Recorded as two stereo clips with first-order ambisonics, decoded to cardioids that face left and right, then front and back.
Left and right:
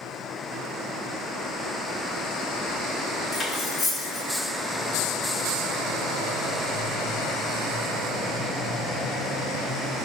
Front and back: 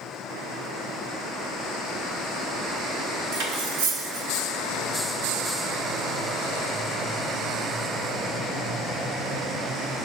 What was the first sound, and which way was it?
Cutlery clinking, 170° left.